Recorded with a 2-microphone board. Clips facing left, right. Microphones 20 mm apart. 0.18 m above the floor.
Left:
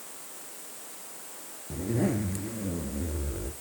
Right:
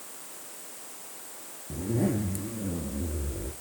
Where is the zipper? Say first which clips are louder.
Even; 15° left (ahead or behind), 1.2 m.